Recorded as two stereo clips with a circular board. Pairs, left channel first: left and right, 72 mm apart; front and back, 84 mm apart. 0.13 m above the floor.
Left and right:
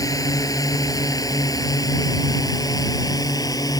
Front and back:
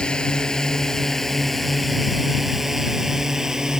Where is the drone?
80° left; by 3.8 s 100° left.